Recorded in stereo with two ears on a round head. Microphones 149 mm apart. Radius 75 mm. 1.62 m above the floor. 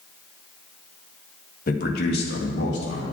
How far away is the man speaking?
About 1.4 m.